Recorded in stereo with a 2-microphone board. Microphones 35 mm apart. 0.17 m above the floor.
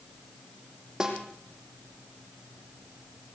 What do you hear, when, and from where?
1.0 s a snare drum: 20° right (ahead or behind), 4 m